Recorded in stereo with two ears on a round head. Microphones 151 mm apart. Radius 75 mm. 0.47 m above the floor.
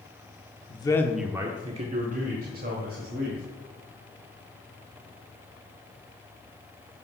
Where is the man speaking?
30° left (ahead or behind), 0.8 m; by 3.4 s 65° right (ahead or behind), 2.5 m.